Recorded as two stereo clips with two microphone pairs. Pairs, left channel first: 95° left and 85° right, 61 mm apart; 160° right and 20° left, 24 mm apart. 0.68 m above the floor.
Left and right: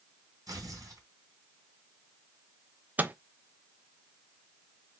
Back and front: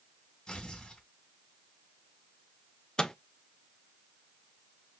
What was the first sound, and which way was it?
Tearing paper, 105° right.